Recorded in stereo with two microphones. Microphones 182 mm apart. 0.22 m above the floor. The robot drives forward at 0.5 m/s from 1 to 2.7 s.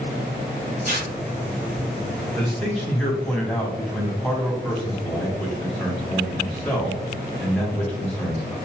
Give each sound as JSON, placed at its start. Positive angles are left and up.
{"t": 0.8, "sound": "tearing paper", "side_deg": -50, "distance_m": 1.8}
{"t": 2.3, "sound": "a man speaking", "side_deg": 5, "distance_m": 1.3}